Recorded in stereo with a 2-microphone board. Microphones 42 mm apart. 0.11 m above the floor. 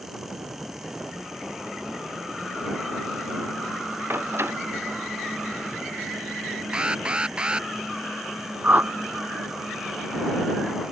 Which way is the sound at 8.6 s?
45° right (ahead or behind).